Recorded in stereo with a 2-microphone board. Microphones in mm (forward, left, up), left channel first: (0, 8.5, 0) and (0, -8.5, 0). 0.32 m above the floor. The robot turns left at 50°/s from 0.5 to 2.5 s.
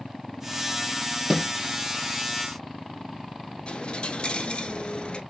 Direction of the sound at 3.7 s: 60° left (ahead or behind).